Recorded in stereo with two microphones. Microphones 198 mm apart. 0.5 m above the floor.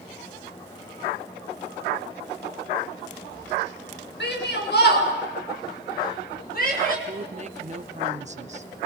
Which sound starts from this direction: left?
A shout, at 4.2 s.